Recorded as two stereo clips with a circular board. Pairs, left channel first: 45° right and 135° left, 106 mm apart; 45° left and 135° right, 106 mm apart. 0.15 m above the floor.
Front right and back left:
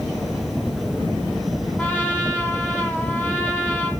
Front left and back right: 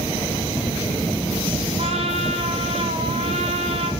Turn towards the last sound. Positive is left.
turn(degrees=-120)